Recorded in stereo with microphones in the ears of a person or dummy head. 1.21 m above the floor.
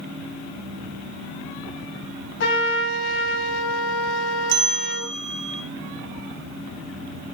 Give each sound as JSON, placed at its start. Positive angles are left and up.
{"t": 2.4, "sound": "a trumpet", "side_deg": 75, "distance_m": 4.5}
{"t": 4.5, "sound": "a bell", "side_deg": -60, "distance_m": 1.6}